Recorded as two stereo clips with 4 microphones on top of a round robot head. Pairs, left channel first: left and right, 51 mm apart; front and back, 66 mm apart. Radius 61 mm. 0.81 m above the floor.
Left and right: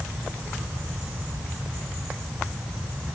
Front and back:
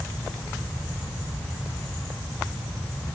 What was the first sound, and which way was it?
Only background noise.